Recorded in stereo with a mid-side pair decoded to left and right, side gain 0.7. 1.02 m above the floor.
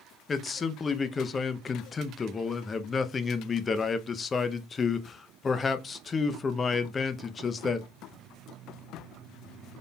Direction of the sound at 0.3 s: 25° left.